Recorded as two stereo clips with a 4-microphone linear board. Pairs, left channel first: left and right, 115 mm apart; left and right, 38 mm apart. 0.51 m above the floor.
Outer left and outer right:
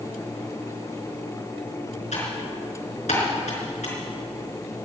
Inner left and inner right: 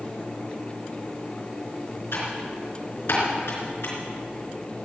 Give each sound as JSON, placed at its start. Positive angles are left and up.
{"t": 2.1, "sound": "typing on a keyboard", "side_deg": 80, "distance_m": 4.0}